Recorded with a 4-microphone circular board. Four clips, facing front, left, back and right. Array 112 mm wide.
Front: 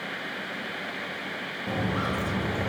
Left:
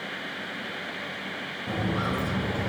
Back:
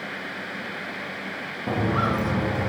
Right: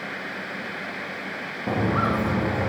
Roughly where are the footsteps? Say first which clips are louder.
Right 6 dB, back 5 dB; right.